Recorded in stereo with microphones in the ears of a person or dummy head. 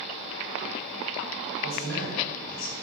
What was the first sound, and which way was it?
A man speaking, 60° left (ahead or behind).